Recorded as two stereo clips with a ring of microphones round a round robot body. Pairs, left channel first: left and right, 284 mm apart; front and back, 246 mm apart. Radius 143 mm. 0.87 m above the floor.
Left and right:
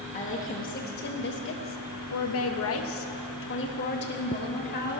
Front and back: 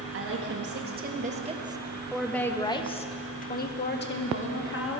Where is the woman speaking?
155° left, 1.5 m; by 5.0 s 30° left, 2.0 m.